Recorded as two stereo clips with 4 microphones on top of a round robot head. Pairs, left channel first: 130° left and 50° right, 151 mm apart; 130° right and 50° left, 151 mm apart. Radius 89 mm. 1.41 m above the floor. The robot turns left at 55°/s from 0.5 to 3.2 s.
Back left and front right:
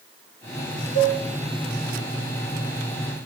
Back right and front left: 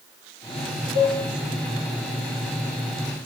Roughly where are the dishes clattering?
Left.